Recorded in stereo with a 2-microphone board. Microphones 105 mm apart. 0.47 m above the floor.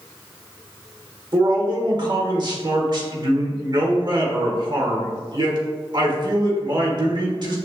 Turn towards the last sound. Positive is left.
turn(degrees=-45)  # may be behind; listen again after turning